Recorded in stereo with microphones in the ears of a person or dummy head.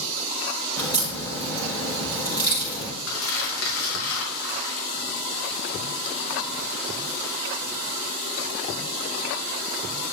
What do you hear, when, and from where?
0.8 s a crack: 15° left (ahead or behind), 5 m
3.1 s crumpling: 75° left (ahead or behind), 4 m